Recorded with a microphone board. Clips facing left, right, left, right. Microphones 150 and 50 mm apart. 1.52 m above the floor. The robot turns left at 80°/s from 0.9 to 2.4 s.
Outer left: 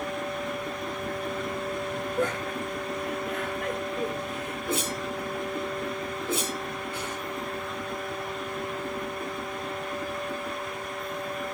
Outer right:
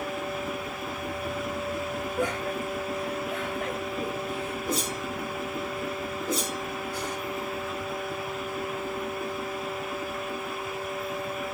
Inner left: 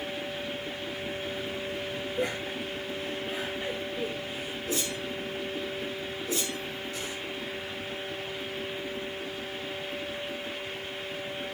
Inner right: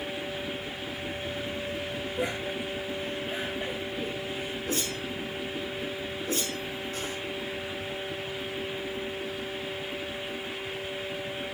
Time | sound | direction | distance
2.2 | laughter | 10° right (ahead or behind) | 9 m
4.7 | a whoosh | 40° right (ahead or behind) | 5.5 m